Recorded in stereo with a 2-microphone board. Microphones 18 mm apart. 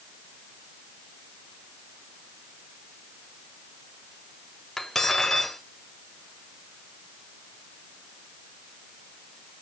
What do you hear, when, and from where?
4.8 s cutlery clinking: 15° left (ahead or behind), 1.5 m